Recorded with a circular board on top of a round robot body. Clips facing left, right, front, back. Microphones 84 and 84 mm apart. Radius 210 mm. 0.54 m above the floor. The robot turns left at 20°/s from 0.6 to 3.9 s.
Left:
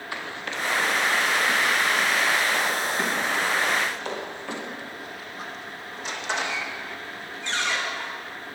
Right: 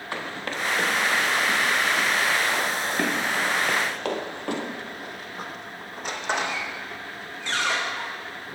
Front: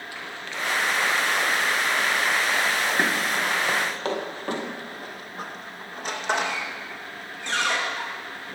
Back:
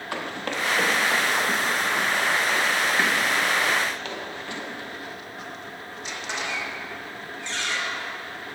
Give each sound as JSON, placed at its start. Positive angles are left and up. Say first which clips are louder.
{"t": 0.1, "sound": "running footsteps", "louder": "right 2 dB, back 7 dB", "azimuth_deg": -140, "distance_m": 1.4}